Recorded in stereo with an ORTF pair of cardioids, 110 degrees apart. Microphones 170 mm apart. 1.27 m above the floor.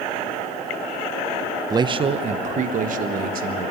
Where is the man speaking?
20° right, 0.7 m; by 3.7 s 60° right, 1.8 m.